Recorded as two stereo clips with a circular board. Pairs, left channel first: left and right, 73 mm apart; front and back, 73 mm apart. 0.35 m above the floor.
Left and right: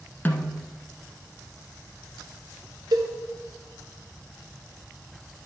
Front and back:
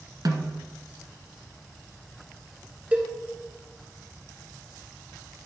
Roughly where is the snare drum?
Behind left.